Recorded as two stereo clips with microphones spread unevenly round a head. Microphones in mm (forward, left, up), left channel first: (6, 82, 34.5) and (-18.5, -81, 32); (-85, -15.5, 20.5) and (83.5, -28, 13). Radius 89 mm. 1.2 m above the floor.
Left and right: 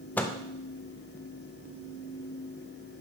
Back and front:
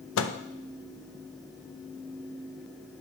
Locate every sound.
0.2 s a microwave: 160° left, 0.5 m